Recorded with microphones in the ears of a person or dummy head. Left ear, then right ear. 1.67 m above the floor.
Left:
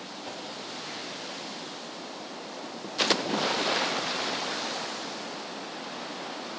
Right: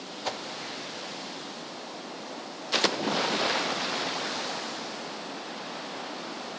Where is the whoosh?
60° right (ahead or behind), 0.8 m.